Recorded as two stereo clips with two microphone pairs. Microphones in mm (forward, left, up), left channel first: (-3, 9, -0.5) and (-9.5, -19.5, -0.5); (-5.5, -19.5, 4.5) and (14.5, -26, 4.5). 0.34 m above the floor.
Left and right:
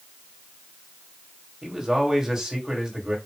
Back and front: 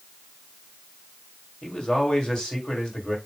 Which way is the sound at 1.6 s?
160° right.